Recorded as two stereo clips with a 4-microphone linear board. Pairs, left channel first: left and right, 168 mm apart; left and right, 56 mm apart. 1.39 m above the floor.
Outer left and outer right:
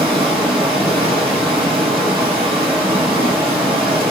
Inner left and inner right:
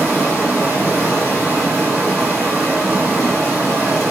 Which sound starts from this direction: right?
Running water, at 0.0 s.